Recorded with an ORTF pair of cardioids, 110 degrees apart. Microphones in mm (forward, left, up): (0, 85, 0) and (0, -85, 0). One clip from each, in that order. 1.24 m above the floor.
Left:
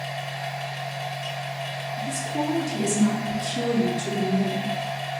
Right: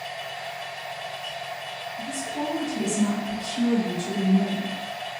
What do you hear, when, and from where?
0.0 s a machine running: 55° left, 1.7 m
2.0 s a woman speaking: 60° left, 1.3 m